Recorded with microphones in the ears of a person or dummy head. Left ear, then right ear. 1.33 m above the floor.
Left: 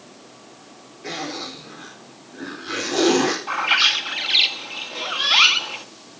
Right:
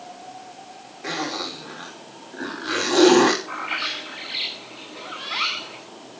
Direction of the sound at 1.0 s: 45° right (ahead or behind).